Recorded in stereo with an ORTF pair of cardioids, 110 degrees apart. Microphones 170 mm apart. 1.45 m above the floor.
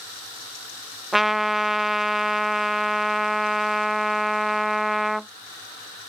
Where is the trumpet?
Straight ahead.